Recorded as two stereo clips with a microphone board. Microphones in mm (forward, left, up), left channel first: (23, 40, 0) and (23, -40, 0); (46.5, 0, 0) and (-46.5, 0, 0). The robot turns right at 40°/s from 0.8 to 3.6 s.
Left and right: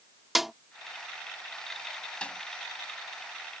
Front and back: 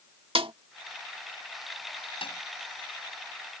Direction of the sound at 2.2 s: 15° left.